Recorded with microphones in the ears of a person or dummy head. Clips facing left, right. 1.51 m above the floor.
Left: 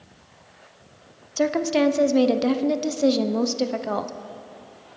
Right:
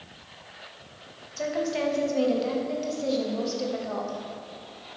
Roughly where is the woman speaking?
Left.